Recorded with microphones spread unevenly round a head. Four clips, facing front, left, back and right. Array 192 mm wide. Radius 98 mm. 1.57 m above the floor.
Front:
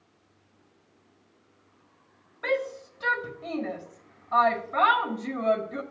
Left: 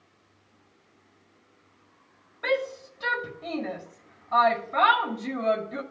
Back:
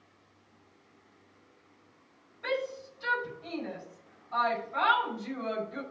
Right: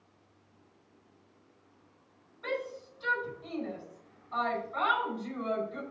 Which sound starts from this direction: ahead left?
A shout, at 2.4 s.